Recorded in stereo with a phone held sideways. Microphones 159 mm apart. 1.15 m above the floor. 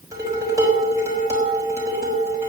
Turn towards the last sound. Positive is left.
turn(degrees=-20)  # may be behind; listen again after turning